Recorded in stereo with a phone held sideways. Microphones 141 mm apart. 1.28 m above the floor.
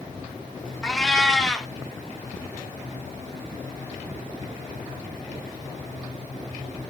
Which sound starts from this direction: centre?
A cat meowing, at 0.8 s.